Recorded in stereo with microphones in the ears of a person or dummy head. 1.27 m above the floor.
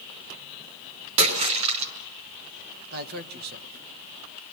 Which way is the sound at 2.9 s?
60° right (ahead or behind).